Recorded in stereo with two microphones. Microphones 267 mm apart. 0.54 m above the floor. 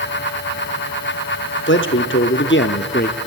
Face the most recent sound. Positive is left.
turn(degrees=30)  # may be behind; listen again after turning